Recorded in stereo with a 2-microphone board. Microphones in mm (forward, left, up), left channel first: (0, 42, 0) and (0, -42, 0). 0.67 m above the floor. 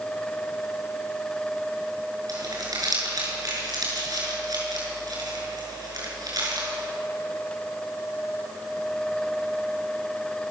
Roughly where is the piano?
No piano in this recording.